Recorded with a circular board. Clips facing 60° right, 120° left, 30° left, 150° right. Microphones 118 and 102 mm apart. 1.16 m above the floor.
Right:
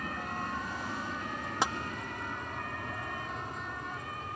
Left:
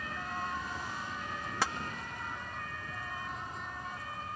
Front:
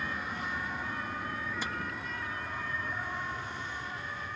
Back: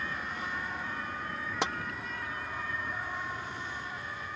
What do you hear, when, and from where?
0.0 s an aircraft: 50° right; by 4.4 s 65° right
1.6 s tapping: 130° right